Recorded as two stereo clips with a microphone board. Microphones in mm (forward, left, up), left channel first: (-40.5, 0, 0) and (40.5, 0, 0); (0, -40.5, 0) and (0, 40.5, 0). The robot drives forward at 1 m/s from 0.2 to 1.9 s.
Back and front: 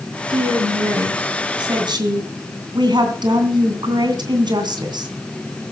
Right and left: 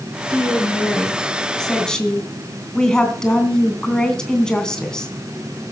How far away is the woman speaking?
About 4.5 m.